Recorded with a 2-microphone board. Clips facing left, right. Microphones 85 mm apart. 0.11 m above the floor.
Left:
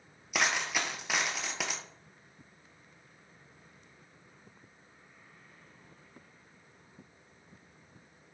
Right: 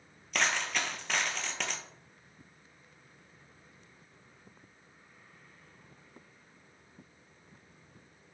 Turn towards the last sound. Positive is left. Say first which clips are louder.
# even
turn(degrees=10)  # may be behind; listen again after turning